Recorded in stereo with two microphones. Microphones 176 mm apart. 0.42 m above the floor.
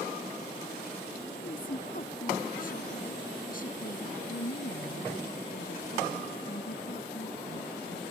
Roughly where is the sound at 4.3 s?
Left.